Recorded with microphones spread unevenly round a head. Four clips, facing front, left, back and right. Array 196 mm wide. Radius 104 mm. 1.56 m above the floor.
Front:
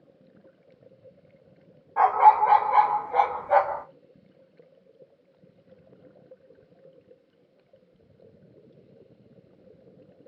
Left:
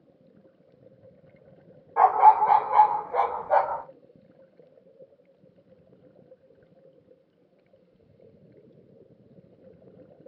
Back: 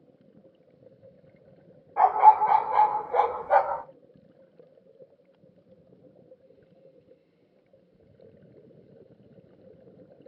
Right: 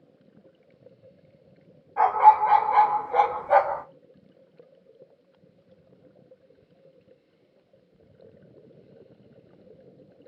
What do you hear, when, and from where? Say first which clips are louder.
2.0 s a dog barking: even, even; 60° left, 1.1 m; by 3.8 s 85° right, 1.3 m